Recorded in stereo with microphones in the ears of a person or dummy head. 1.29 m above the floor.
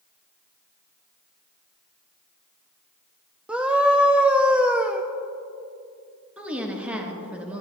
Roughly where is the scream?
Centre.